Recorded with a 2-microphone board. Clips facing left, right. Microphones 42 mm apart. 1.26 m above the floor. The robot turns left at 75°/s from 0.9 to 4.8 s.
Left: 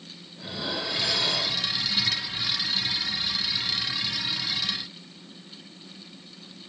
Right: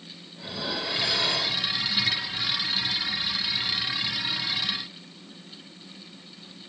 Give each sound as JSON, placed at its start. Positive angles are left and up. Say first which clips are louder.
{"t": 0.4, "sound": "dishes clattering", "louder": "even", "azimuth_deg": -5, "distance_m": 3.5}